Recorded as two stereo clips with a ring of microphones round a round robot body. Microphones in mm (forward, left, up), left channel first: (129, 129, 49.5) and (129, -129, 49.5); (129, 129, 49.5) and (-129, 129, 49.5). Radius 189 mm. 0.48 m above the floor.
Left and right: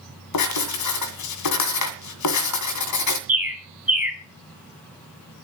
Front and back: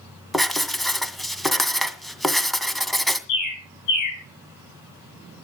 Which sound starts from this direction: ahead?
A bird, at 3.3 s.